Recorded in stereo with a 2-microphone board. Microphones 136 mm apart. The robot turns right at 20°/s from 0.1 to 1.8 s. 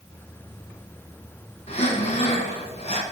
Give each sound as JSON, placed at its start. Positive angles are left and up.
{"t": 1.7, "sound": "breathing", "side_deg": 50, "distance_m": 1.2}